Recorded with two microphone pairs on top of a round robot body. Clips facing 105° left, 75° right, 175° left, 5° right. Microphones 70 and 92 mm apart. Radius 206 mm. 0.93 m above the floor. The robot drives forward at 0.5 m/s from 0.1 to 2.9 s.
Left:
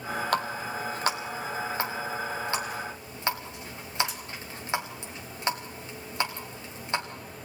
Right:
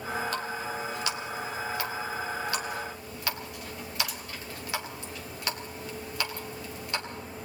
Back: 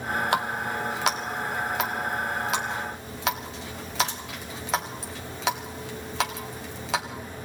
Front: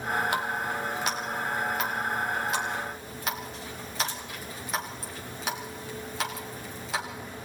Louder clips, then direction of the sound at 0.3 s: Left 4 dB, back 3 dB; 145° left.